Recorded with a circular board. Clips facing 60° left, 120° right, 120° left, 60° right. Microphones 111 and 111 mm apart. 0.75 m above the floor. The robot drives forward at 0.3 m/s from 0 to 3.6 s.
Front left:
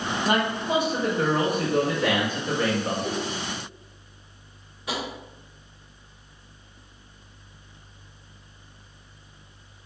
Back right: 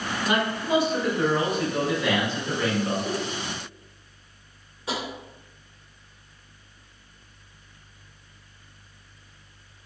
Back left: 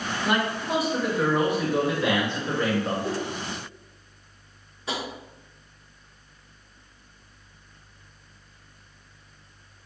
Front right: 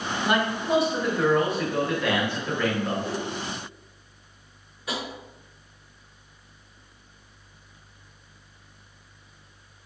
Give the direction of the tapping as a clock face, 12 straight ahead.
6 o'clock.